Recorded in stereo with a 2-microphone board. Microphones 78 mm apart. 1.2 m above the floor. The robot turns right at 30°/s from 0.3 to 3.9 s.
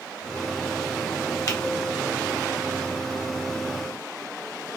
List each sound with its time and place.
1.5 s a finger snap: 45° left (ahead or behind), 1.0 m; by 1.6 s 50° left (ahead or behind), 1.0 m